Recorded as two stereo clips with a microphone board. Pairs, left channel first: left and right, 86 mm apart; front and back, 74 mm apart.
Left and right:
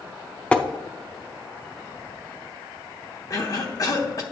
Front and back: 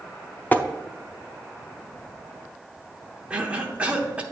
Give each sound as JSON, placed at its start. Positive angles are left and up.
{"t": 0.5, "sound": "tapping", "azimuth_deg": 30, "distance_m": 0.5}
{"t": 3.3, "sound": "a cough", "azimuth_deg": 115, "distance_m": 0.9}